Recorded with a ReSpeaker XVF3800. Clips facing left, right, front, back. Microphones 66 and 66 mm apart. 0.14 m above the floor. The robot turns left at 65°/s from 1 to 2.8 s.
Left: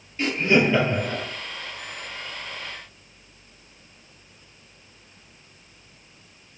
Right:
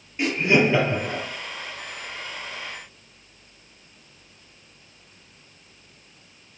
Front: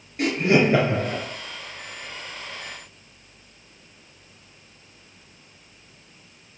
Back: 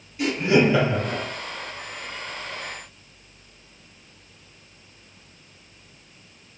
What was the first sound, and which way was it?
Laughter, 25° right.